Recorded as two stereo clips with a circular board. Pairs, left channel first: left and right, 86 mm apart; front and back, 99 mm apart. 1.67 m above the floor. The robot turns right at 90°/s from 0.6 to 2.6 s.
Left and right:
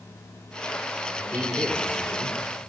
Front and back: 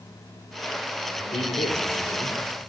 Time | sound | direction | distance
1.2 | a man speaking | 40° right | 5 m